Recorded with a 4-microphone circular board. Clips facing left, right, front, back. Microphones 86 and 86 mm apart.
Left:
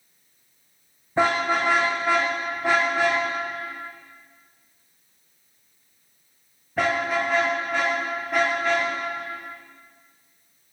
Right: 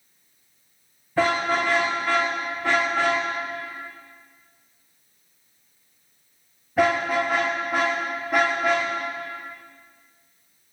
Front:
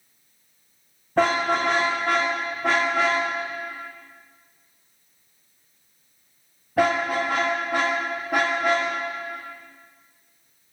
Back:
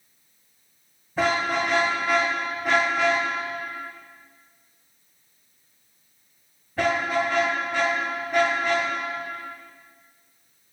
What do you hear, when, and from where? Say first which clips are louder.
1.2 s a car horn: even, front 3 dB; 20° left, 6.5 m; by 8.9 s 5° right, 8.5 m